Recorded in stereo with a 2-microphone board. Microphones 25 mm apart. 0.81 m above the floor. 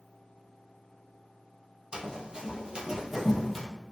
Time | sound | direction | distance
1.9 | running footsteps | 40° right (ahead or behind) | 1.4 m